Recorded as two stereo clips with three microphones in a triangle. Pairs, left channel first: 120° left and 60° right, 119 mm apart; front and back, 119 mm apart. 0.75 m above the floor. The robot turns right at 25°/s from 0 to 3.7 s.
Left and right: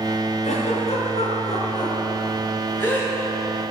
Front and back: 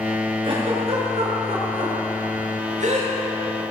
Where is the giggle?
135° left, 4.5 m; by 3.1 s 160° right, 4.5 m.